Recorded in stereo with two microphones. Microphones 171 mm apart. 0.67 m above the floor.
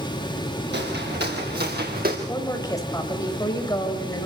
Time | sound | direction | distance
0.7 | footsteps | 75° right (ahead or behind) | 5.5 m
2.3 | a woman speaking | 20° left (ahead or behind) | 4 m